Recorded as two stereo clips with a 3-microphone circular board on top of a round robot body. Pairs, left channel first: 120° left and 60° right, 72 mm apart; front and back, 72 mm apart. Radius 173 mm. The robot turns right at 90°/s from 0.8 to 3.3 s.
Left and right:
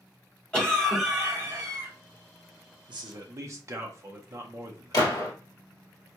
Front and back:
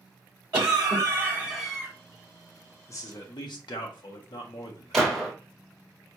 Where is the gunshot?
90° left, 1.4 m.